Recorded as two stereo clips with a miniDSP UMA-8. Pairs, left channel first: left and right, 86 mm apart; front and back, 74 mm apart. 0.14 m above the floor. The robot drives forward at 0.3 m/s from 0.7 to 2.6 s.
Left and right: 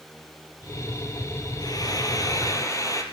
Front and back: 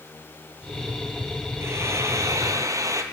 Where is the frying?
130° left, 1.2 m; by 3.0 s 140° left, 1.4 m.